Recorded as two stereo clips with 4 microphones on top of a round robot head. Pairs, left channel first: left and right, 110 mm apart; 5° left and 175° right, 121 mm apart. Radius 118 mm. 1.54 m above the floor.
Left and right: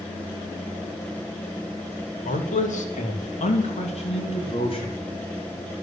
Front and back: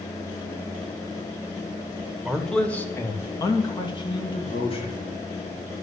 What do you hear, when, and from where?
2.2 s a man speaking: 100° left, 2 m; by 5.0 s 50° left, 4 m